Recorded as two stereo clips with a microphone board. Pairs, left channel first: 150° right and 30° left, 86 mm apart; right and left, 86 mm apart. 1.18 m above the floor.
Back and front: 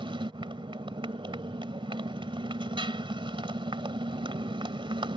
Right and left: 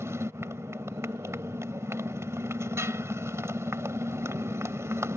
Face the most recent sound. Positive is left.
turn(degrees=35)